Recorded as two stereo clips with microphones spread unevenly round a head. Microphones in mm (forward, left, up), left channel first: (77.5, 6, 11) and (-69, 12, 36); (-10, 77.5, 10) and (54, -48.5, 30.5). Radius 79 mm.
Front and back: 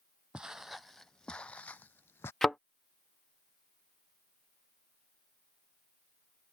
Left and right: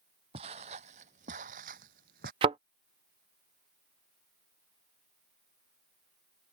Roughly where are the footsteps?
Right.